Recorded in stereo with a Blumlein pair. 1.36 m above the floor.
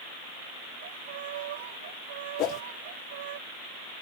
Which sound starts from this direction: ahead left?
A whoosh, at 2.4 s.